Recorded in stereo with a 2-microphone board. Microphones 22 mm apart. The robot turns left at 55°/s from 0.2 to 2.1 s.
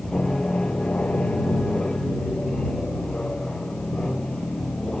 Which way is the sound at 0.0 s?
150° left.